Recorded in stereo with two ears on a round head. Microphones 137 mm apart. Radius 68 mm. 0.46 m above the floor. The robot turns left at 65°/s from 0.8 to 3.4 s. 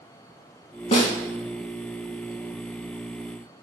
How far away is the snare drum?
About 0.7 m.